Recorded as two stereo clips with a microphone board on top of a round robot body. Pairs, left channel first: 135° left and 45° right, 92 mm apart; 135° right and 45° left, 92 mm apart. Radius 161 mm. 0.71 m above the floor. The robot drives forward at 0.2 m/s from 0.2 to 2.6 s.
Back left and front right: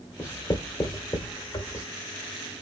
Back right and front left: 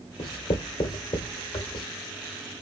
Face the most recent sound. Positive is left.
turn(degrees=-170)